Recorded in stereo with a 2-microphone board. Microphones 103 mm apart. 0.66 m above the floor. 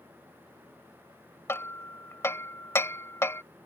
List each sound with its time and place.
1.5 s hammering: 25° left (ahead or behind)